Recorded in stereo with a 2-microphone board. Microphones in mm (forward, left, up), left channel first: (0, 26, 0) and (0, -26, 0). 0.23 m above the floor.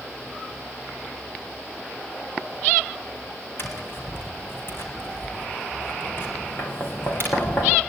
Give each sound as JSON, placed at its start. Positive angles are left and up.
{"t": 3.6, "sound": "tapping", "side_deg": 50, "distance_m": 3.0}